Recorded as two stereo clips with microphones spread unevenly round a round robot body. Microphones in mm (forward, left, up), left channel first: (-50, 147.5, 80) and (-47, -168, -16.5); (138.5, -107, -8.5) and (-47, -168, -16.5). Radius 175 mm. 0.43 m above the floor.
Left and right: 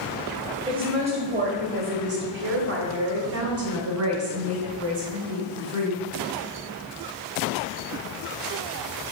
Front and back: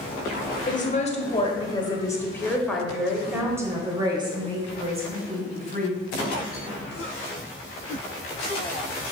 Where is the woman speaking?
25° right, 2 m; by 6.0 s 115° right, 3 m.